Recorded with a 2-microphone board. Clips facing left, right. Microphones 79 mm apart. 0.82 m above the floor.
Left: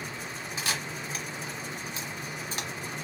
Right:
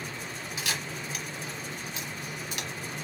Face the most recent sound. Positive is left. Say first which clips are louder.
# left 1 dB
turn(degrees=35)  # may be behind; listen again after turning